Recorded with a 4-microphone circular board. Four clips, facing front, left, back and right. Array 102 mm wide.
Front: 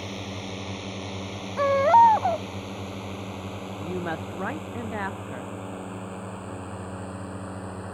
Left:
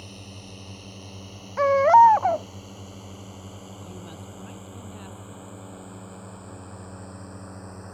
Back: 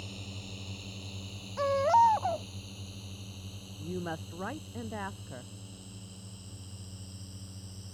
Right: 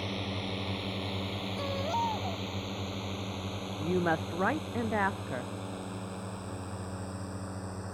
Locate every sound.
0.0 s a drone: 35° right; by 7.9 s straight ahead
1.6 s a baby crying: 65° left
3.8 s a woman speaking: 70° right